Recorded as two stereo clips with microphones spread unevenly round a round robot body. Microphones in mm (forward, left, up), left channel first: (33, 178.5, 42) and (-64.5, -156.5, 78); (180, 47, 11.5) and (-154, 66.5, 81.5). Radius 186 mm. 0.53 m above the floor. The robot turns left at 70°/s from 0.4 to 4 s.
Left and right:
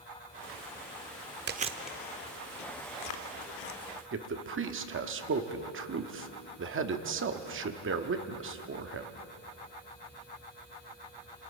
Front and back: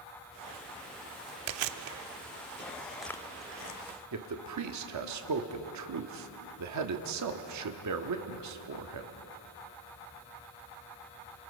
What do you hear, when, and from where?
1.5 s chewing: 170° right, 0.8 m; by 3.8 s 30° left, 0.8 m
4.1 s a man speaking: 155° right, 1.4 m